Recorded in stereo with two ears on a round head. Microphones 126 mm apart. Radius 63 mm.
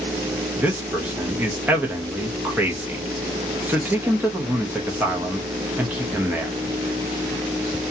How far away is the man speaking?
About 0.7 m.